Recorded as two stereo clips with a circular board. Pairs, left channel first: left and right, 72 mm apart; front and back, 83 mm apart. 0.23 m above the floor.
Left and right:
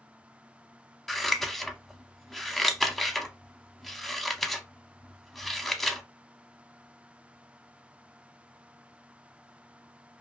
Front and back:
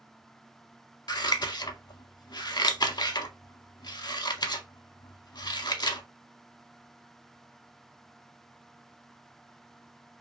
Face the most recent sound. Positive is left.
turn(degrees=5)